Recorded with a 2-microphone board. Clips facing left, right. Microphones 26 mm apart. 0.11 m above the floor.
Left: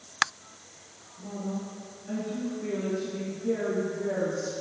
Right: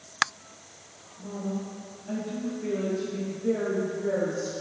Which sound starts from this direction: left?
A woman speaking, at 1.2 s.